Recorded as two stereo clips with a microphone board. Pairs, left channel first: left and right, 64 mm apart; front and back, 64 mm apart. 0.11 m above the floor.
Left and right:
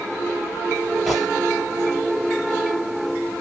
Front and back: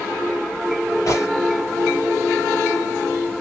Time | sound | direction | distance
1.1 | a gunshot | straight ahead | 3 m